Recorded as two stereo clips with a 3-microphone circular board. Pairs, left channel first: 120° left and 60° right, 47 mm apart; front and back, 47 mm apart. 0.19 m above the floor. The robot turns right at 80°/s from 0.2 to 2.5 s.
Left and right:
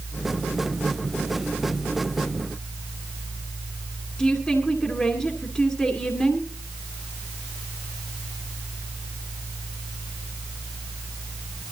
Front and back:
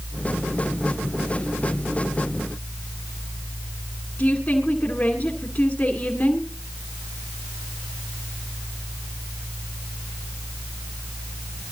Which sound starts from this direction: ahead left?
A woman speaking, at 4.2 s.